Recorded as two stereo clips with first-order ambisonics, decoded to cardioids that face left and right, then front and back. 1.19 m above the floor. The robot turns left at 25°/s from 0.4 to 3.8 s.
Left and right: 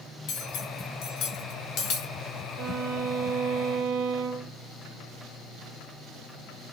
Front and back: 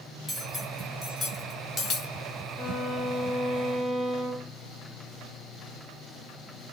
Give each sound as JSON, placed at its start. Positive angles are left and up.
{"t": 0.3, "sound": "cutlery clinking", "azimuth_deg": 90, "distance_m": 0.6}
{"t": 2.6, "sound": "a violin", "azimuth_deg": -65, "distance_m": 0.6}